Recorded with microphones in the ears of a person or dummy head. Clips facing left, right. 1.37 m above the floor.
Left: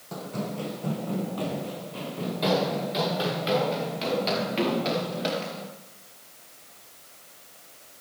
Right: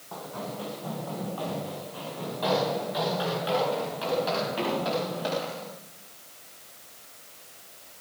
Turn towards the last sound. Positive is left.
turn(degrees=35)  # may be behind; listen again after turning